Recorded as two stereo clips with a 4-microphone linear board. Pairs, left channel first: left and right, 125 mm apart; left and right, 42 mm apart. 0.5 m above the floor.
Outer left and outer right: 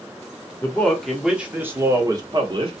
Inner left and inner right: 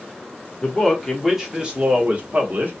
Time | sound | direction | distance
0.6 | a man speaking | 15° left (ahead or behind) | 1.0 m